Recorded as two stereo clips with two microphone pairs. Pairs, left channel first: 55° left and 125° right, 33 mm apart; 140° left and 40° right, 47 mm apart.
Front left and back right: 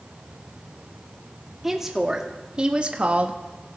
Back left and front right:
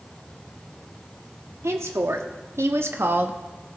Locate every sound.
1.6 s a woman speaking: 45° right, 1.5 m; by 3.4 s 90° right, 0.9 m